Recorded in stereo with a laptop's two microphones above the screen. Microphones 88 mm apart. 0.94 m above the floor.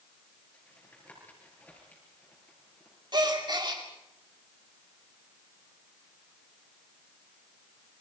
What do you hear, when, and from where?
0.5 s tapping: 20° left (ahead or behind), 5 m
3.1 s a gasp: 55° right (ahead or behind), 2.5 m